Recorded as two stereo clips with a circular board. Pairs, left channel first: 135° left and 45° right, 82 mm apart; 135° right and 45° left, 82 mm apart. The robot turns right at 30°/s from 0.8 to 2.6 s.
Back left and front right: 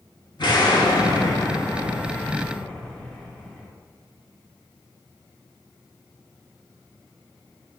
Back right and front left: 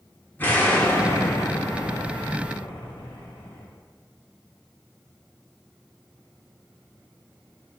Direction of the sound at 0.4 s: 160° left.